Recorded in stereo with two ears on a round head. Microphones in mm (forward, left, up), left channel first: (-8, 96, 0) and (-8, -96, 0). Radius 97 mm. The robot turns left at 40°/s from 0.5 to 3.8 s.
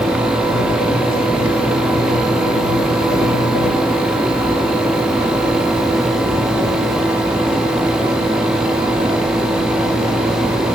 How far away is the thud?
I don't hear a thud.